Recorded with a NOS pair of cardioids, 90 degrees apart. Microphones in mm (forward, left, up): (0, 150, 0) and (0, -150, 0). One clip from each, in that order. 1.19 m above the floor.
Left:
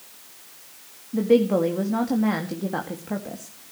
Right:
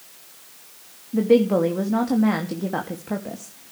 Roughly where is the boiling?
No boiling in this recording.